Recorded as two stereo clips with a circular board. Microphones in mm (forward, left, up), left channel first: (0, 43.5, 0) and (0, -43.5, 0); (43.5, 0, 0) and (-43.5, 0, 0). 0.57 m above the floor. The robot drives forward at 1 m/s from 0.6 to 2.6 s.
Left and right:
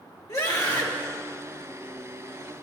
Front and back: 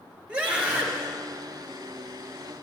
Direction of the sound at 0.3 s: 110° left.